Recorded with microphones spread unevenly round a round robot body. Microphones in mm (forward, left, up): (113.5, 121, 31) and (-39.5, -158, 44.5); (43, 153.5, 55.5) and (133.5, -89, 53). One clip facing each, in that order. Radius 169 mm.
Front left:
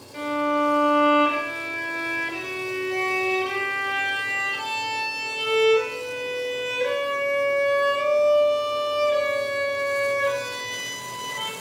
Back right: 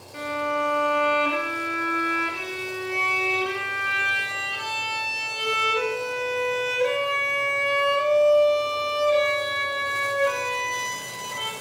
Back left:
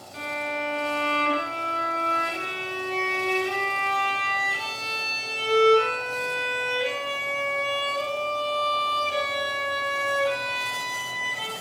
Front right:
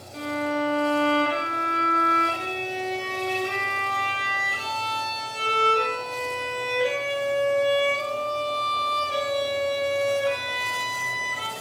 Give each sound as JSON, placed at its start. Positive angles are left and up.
{"t": 0.1, "sound": "a violin", "azimuth_deg": -40, "distance_m": 1.8}